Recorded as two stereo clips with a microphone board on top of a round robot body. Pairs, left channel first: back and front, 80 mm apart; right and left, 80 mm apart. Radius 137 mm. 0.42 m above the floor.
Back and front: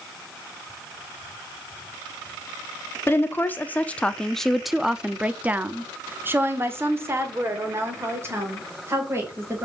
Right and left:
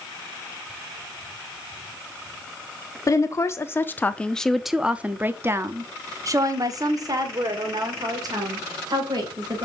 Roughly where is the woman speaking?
Behind right.